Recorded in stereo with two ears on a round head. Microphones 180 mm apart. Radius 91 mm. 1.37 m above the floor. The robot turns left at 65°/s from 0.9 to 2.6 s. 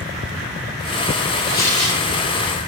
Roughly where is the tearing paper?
Ahead left.